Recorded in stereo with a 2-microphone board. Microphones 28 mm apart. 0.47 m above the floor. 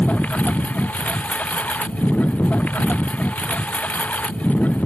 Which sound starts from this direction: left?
A lawn mower, at 0.0 s.